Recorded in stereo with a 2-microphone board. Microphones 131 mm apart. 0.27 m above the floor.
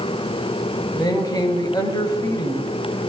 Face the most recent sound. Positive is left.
turn(degrees=30)  # may be behind; listen again after turning